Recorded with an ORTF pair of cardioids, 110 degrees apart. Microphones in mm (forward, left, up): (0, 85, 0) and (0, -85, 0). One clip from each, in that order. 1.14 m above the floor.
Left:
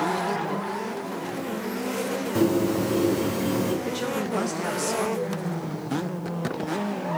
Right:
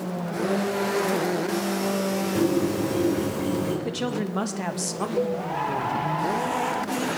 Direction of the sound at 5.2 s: 40° right.